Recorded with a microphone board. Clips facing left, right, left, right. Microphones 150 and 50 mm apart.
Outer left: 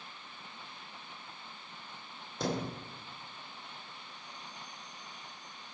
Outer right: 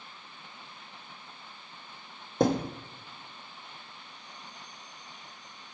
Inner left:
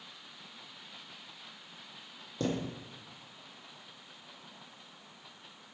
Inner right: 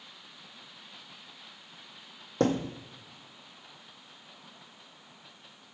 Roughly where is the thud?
Right.